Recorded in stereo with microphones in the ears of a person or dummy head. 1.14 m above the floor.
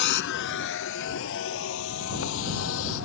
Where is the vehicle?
60° left (ahead or behind); by 3.1 s 75° left (ahead or behind).